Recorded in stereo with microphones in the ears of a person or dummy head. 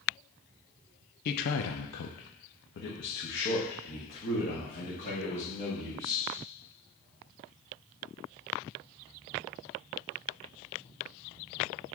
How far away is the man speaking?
About 0.5 m.